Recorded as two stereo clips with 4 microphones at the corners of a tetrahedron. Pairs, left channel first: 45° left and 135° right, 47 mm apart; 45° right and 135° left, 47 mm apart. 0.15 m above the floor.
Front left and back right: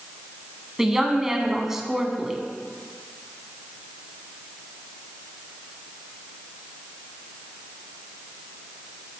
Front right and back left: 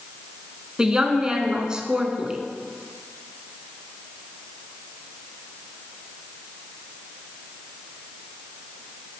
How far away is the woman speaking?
About 1.3 m.